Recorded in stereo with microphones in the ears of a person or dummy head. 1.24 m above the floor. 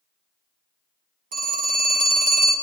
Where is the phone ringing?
45° right (ahead or behind), 1.1 m.